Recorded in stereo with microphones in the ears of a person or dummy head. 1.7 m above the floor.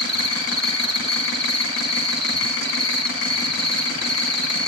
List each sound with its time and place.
0.0 s an insect: 20° right (ahead or behind), 3 m